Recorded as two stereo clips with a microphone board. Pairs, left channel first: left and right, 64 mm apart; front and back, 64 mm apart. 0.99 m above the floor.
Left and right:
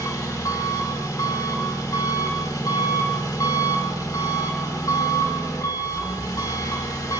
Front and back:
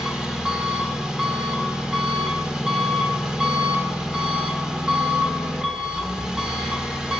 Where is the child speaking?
I don't hear a child speaking.